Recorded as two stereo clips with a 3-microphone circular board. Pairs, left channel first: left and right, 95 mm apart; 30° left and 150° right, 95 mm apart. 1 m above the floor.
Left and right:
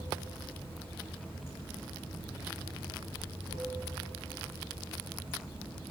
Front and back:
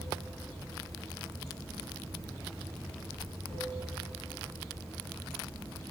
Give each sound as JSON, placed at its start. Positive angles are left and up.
{"t": 0.0, "sound": "running water", "azimuth_deg": 85, "distance_m": 1.3}